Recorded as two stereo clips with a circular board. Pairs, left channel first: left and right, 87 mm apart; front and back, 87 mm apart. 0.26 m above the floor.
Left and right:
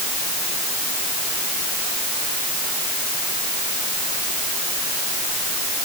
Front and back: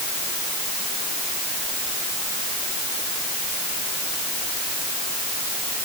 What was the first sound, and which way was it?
Only background noise.